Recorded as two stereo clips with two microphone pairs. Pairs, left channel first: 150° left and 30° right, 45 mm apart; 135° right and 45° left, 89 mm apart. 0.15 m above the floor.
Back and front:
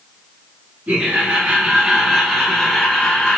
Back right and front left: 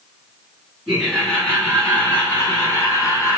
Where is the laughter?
50° right, 1.5 m; by 3.4 s 150° right, 1.5 m.